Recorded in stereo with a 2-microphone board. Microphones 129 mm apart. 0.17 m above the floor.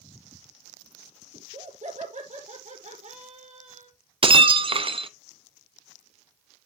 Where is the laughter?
65° right (ahead or behind), 5.5 m.